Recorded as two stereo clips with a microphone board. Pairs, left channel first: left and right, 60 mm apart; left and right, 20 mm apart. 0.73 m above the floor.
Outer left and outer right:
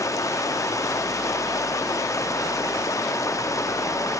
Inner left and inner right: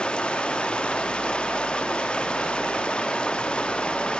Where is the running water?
60° left (ahead or behind), 0.8 m.